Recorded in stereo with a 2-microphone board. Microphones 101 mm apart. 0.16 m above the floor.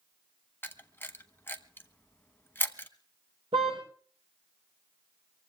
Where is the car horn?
75° right (ahead or behind), 6 m.